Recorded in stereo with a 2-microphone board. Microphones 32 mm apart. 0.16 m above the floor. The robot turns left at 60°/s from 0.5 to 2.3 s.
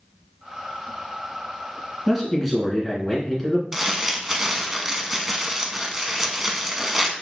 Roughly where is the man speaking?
Centre.